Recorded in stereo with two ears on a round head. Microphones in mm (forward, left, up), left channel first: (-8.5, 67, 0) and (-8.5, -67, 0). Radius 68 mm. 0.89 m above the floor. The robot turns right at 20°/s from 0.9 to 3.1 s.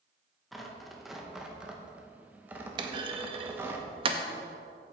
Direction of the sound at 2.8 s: 35° right (ahead or behind).